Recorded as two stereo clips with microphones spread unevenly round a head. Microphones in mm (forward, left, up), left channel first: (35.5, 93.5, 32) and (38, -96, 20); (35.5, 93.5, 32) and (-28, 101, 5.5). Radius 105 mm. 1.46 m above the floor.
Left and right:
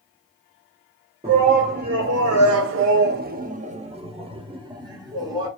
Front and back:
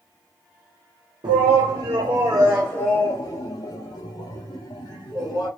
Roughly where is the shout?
Behind right.